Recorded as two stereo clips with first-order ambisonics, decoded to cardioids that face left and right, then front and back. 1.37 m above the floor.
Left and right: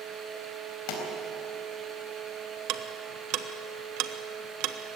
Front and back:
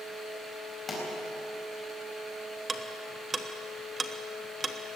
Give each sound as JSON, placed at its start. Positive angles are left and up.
{"t": 0.9, "sound": "a pop", "azimuth_deg": 75, "distance_m": 4.5}
{"t": 2.7, "sound": "ticking", "azimuth_deg": -105, "distance_m": 1.0}